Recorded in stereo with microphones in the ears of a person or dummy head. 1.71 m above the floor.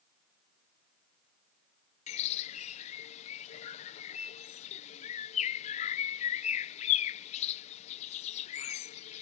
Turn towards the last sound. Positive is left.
turn(degrees=40)  # may be behind; listen again after turning